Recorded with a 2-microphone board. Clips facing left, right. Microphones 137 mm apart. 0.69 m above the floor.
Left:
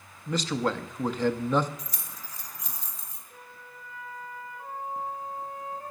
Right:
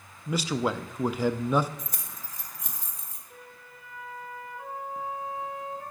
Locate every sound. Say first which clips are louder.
0.3 s a man speaking: even; 10° right (ahead or behind), 0.5 m
1.8 s keys jangling: right 1 dB; 50° right (ahead or behind), 1.6 m
3.3 s a flute: even; 75° right (ahead or behind), 2.5 m